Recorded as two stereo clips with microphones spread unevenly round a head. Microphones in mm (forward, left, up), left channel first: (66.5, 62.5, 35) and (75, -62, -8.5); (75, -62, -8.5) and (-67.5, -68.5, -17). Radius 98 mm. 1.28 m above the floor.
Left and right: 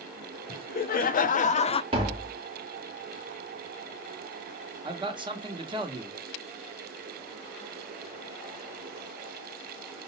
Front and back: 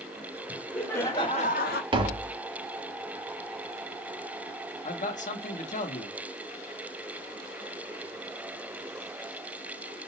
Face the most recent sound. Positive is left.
turn(degrees=-30)